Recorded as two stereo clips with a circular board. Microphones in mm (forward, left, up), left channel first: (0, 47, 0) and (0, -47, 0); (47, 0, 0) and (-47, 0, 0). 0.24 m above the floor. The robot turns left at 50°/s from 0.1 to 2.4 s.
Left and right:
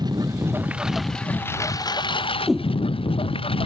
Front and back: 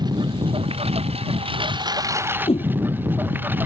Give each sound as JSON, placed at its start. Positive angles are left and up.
{"t": 0.0, "sound": "a lawn mower", "azimuth_deg": -135}
{"t": 2.5, "sound": "a whoosh", "azimuth_deg": 0}